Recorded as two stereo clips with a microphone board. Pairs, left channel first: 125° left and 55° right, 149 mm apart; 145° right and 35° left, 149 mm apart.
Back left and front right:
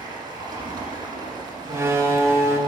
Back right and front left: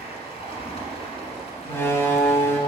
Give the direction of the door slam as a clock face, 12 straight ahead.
3 o'clock.